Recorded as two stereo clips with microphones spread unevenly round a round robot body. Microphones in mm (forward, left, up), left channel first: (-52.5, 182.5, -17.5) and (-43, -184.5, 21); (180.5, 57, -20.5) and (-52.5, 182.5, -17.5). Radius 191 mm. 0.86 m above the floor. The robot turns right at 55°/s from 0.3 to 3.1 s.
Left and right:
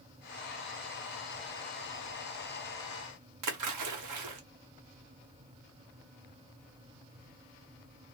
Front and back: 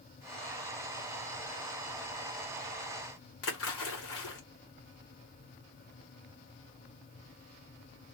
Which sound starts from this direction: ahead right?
A splash, at 3.4 s.